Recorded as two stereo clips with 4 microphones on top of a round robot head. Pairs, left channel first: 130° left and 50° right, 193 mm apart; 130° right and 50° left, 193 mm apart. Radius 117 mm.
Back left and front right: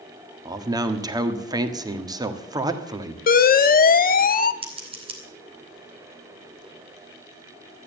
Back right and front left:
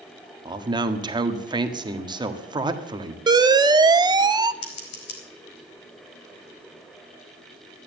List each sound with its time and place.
0.5 s a man speaking: 5° left, 1.5 m
3.3 s an alarm: 115° left, 0.8 m
4.6 s scissors: 110° right, 3 m